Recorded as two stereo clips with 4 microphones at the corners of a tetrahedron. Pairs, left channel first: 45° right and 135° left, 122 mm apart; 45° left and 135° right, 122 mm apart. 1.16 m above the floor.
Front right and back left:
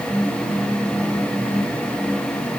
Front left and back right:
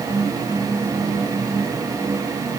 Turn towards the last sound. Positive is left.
No sound to turn to.